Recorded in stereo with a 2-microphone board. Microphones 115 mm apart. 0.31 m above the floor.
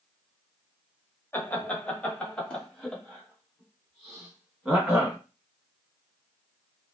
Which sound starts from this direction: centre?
Laughter, at 1.3 s.